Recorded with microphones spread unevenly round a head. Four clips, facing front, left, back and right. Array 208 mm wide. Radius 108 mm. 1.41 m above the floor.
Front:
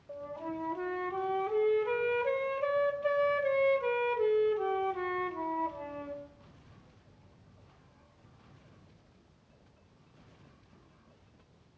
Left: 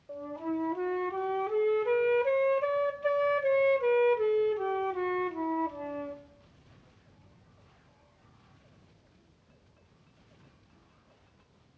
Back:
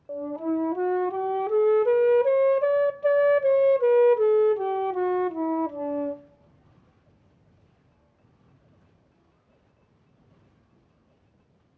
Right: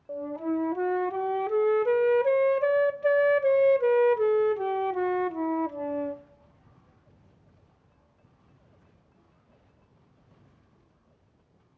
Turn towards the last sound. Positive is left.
turn(degrees=-155)